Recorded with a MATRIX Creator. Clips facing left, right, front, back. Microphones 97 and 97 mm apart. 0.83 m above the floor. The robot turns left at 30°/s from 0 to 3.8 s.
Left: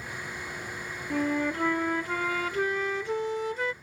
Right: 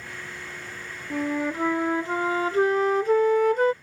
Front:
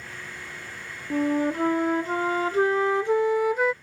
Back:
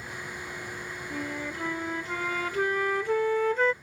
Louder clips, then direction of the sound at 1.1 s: Right 1 dB, front 13 dB; straight ahead.